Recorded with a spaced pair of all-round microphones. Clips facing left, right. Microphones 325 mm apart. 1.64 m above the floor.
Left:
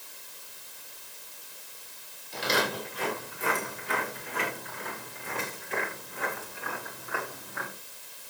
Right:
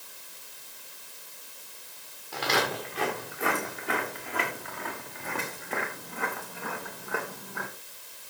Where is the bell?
No bell in this recording.